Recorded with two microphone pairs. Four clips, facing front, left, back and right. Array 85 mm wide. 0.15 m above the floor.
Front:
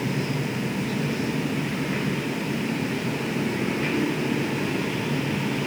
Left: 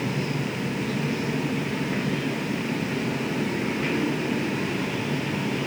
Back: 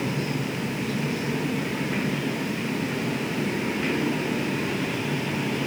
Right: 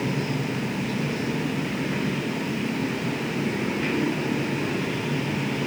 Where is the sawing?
I don't hear sawing.